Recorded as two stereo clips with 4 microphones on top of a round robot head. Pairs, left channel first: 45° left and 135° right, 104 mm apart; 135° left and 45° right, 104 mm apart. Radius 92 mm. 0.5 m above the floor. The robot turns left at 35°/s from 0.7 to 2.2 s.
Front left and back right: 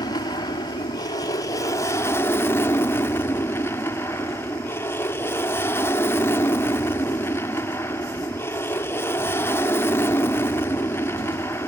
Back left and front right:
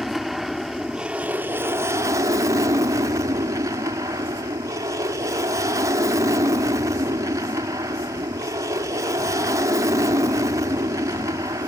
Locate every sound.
0.0 s an aircraft: 45° left; by 11.7 s 10° right